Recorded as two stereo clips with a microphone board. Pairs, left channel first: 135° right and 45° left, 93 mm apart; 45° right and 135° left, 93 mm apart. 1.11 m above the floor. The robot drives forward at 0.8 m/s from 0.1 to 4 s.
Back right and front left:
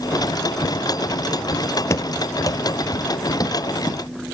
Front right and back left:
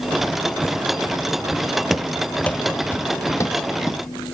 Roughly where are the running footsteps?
Behind right.